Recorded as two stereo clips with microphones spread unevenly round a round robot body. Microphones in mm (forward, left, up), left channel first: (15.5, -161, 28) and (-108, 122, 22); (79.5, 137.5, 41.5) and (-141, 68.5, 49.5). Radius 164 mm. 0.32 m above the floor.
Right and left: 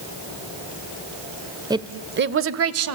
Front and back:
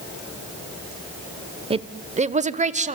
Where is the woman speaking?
170° left, 0.9 m; by 3.0 s 140° left, 1.7 m.